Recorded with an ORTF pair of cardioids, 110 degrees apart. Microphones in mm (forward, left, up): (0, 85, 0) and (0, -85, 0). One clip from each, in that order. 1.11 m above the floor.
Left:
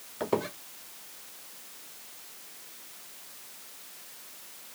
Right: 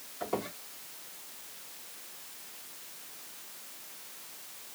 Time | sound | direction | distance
0.2 | a squeak | 65° left | 1.6 m